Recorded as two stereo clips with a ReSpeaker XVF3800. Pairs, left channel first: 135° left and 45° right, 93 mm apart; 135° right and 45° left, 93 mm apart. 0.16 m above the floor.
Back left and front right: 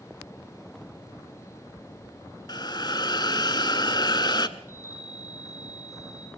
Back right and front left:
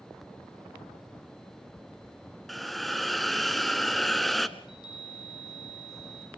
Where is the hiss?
135° left, 0.9 m.